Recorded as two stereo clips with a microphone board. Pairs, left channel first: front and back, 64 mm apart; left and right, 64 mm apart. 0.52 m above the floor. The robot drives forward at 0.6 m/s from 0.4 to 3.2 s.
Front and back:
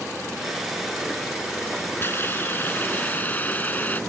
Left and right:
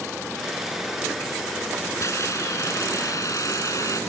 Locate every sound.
2.0 s a hiss: 55° left; by 4.0 s 60° left